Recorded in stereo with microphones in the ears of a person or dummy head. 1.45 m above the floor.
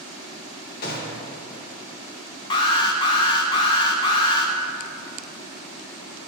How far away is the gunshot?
About 1.3 m.